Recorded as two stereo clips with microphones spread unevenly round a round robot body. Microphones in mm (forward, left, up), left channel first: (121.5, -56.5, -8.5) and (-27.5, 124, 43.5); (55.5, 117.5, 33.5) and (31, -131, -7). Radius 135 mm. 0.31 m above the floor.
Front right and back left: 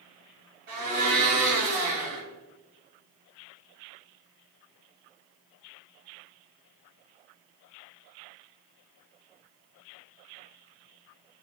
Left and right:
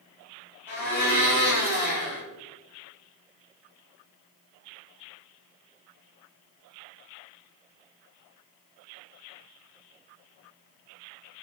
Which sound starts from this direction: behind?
A blender, at 0.7 s.